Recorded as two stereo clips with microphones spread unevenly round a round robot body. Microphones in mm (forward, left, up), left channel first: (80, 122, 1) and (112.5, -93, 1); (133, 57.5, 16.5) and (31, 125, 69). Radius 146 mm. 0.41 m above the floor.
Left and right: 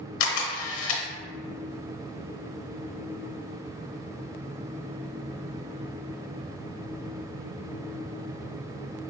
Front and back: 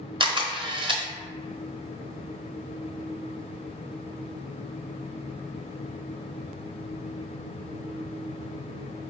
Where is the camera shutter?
85° left, 1.0 m.